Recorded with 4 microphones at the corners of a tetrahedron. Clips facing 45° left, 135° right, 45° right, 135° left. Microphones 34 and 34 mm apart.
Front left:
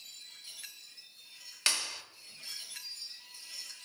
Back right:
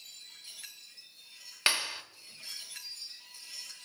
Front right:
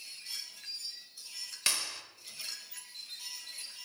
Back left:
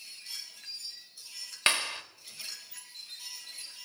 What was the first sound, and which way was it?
A clap, 170° left.